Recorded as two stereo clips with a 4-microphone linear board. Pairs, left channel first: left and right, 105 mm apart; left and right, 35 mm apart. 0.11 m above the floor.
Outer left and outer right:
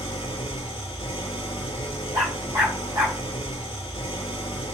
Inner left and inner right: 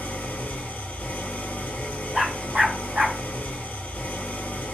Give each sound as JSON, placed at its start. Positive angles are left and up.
{"t": 0.0, "sound": "an engine running", "side_deg": 55, "distance_m": 0.8}
{"t": 2.1, "sound": "a dog barking", "side_deg": -40, "distance_m": 2.0}